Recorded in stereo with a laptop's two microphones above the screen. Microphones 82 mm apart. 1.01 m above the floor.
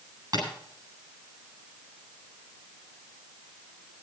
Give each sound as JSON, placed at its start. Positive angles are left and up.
{"t": 0.3, "sound": "tapping", "side_deg": -50, "distance_m": 8.5}